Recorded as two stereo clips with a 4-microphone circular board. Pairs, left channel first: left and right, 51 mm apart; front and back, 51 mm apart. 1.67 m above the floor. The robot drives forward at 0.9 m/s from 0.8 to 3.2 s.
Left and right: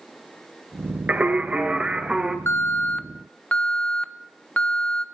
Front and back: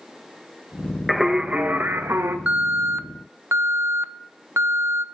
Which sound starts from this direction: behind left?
An alarm, at 2.5 s.